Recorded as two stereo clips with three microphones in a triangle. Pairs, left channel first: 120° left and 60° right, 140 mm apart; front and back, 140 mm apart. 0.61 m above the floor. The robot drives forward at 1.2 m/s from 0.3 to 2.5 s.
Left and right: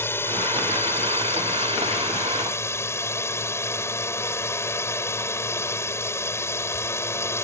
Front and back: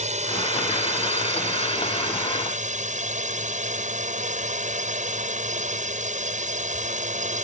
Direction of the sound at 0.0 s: 170° right.